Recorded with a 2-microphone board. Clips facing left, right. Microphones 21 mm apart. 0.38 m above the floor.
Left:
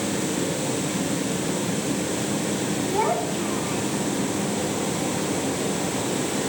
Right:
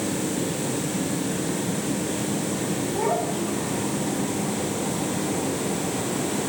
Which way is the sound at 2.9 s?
55° left (ahead or behind).